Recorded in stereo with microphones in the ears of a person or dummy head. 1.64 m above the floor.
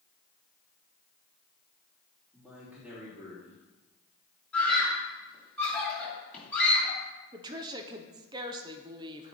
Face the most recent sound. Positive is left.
turn(degrees=-15)  # may be behind; listen again after turning